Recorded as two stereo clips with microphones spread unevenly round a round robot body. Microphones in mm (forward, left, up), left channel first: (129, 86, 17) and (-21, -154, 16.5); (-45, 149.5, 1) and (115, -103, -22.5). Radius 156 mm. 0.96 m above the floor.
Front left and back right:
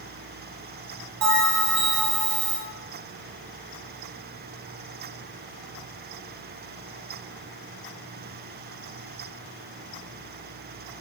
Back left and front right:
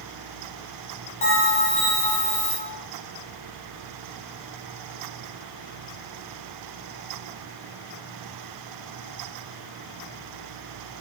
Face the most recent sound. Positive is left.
turn(degrees=-165)